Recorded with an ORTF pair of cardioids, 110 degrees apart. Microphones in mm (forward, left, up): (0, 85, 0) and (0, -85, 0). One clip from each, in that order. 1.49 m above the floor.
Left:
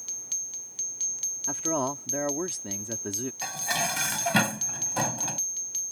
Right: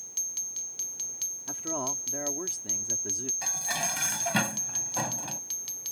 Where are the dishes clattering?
25° left.